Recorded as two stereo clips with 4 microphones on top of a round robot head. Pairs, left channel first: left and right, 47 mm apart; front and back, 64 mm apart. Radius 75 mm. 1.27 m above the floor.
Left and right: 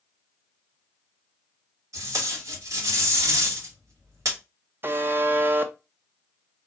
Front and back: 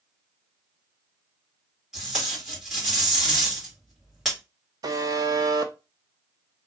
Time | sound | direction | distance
1.9 | tape being pulled | 95° right | 1.8 m
4.8 | a buzzer | 135° right | 0.6 m